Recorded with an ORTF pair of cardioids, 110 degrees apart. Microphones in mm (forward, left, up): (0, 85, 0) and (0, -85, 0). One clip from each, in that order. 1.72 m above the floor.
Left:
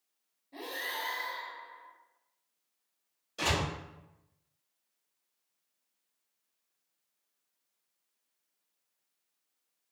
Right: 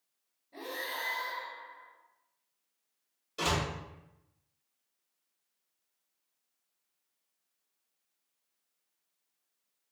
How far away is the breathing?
About 1.4 m.